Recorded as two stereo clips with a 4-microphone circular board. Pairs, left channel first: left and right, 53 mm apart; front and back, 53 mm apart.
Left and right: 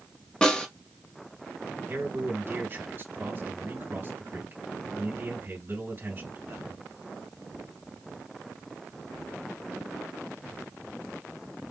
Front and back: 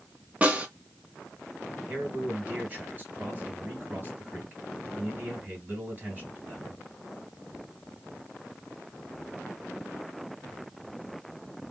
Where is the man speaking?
130° right, 2.5 m.